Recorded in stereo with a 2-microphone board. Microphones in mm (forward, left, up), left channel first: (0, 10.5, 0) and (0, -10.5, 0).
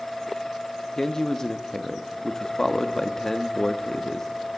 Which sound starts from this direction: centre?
A man speaking, at 1.0 s.